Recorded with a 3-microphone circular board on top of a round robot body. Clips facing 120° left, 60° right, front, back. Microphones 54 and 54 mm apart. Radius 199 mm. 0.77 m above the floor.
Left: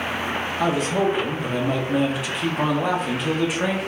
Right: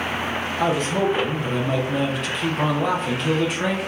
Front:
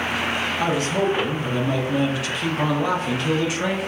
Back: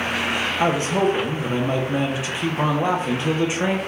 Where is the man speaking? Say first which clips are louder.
Even, back 3 dB; 165° right, 1.0 m.